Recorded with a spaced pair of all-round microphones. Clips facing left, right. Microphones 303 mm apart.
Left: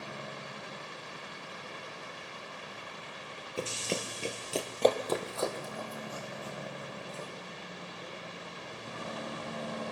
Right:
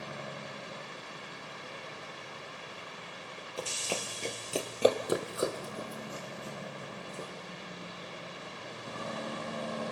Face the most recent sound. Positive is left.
turn(degrees=-30)  # may be behind; listen again after turning